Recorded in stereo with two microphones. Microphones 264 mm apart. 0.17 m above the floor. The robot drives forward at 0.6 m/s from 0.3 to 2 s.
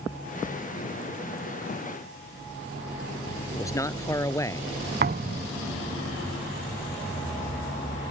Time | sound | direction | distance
3.5 | a man speaking | 10° left (ahead or behind) | ?
5.0 | a thud | 40° right (ahead or behind) | ?